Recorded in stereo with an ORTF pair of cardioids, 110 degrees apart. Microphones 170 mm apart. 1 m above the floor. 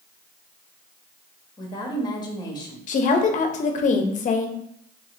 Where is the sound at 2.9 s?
50° left, 0.7 m.